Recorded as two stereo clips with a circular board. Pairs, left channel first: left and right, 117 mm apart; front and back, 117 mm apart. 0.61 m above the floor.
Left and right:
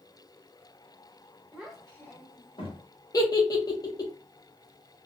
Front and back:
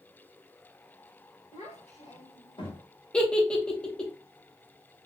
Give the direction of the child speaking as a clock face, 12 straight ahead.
12 o'clock.